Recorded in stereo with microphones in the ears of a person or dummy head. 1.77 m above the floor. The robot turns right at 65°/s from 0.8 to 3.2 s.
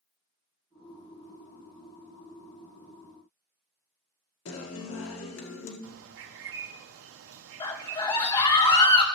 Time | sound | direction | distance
4.5 | a guitar | 70° left (ahead or behind) | 1.8 m
5.8 | a bird | 80° right | 0.6 m
7.6 | a scream | 20° left (ahead or behind) | 1.5 m